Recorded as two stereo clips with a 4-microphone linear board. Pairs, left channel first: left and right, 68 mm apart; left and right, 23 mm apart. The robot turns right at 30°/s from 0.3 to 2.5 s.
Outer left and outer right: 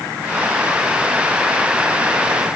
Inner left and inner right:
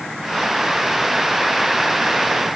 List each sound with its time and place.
Only background noise.